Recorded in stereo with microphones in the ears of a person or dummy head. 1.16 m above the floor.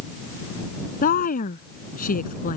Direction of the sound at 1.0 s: 50° left (ahead or behind).